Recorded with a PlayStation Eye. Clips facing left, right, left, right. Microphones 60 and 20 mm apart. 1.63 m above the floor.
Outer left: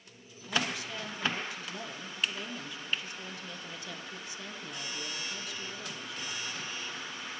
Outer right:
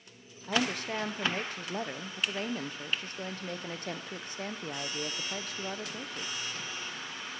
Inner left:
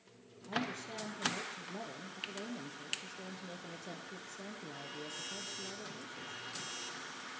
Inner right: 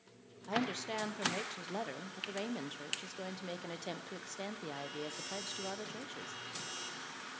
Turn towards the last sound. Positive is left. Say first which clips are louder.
# outer right 3 dB, inner right 3 dB
turn(degrees=-45)  # may be behind; listen again after turning